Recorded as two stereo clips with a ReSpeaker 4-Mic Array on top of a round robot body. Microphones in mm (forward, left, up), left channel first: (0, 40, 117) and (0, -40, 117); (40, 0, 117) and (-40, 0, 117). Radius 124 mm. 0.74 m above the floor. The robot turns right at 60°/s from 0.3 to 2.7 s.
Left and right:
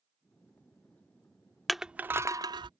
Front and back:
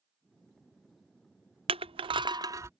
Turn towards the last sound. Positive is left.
turn(degrees=-120)